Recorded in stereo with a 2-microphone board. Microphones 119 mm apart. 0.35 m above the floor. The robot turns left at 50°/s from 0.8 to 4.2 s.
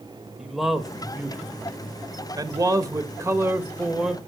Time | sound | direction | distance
0.4 | a man speaking | 5° right (ahead or behind) | 1.3 m